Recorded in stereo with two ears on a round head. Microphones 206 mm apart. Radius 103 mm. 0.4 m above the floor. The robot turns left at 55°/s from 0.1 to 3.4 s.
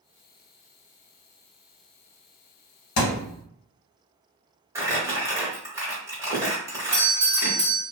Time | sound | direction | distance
3.0 | a thud | 75° left (ahead or behind) | 0.8 m
4.8 | crumpling | 15° right (ahead or behind) | 1.0 m
6.9 | a doorbell | 20° right (ahead or behind) | 1.2 m